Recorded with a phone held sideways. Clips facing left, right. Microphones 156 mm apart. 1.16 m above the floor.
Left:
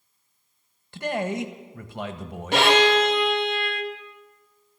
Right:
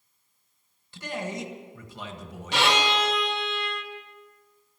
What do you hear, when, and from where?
0.9 s a man speaking: 60° left (ahead or behind), 1.3 m
2.5 s a violin: 55° left (ahead or behind), 1.4 m